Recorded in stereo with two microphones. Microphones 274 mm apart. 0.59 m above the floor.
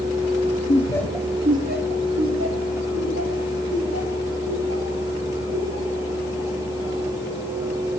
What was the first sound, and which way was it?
Laughter, 30° left (ahead or behind).